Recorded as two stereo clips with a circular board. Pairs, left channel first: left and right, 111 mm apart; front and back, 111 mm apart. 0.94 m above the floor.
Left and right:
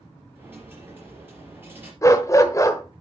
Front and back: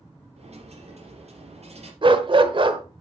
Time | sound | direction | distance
0.4 | a dropped coin | 160° right | 4.5 m
2.0 | a dog barking | 150° left | 1.1 m